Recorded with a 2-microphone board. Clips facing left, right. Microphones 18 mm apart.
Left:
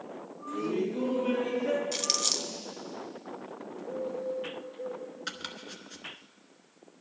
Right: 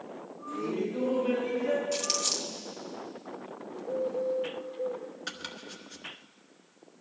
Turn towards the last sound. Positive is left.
turn(degrees=5)  # may be behind; listen again after turning